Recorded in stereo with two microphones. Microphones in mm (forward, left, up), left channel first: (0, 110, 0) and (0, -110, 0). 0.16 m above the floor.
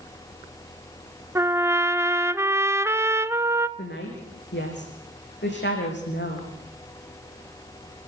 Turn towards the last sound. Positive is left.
turn(degrees=55)  # may be behind; listen again after turning